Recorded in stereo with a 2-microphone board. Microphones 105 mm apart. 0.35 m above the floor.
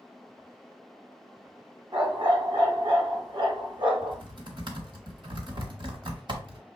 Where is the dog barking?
45° right (ahead or behind), 1.1 m.